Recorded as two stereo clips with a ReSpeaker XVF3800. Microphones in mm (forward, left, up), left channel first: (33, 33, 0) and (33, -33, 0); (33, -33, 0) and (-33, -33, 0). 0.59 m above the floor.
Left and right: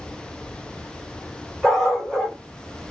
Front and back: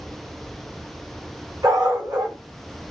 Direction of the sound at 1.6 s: 175° left.